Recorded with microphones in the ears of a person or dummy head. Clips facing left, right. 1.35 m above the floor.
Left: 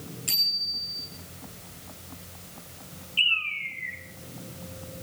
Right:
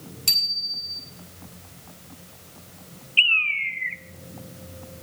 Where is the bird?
45° right (ahead or behind), 1.0 m.